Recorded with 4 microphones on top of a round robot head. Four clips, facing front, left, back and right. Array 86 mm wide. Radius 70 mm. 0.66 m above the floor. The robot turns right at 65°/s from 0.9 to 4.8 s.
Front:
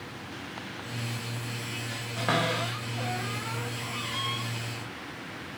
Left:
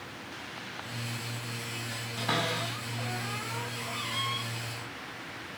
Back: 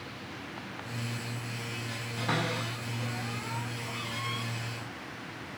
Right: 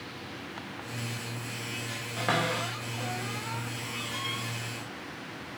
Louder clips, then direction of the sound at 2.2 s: Right 2 dB, front 4 dB; 55° right.